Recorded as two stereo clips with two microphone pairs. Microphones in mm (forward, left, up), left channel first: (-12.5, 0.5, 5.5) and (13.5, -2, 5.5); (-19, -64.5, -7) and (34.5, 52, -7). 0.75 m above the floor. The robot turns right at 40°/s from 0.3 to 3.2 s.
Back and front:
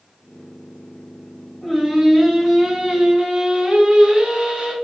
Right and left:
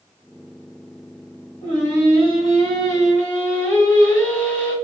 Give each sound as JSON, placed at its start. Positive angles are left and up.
{"t": 1.6, "sound": "singing", "azimuth_deg": -110, "distance_m": 2.5}